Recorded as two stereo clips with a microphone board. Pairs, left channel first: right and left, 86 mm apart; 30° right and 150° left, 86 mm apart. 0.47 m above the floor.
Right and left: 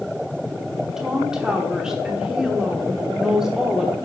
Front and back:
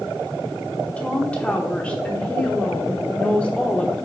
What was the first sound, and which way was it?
A woman speaking, 20° left.